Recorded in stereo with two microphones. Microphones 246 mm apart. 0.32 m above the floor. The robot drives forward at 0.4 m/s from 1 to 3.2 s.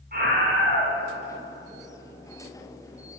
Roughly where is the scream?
Right.